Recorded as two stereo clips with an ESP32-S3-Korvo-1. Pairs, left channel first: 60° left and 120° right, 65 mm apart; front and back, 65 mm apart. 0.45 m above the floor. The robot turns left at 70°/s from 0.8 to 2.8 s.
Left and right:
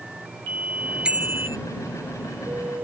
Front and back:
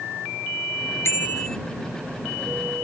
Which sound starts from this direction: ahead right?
A bicycle bell, at 1.1 s.